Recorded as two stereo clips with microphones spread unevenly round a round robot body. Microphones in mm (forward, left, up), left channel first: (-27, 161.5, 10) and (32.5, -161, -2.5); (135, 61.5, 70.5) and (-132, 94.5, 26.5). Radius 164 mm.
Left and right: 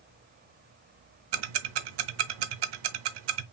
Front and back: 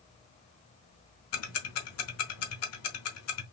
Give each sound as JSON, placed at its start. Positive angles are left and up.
{"t": 1.3, "sound": "ticking", "azimuth_deg": -55, "distance_m": 0.8}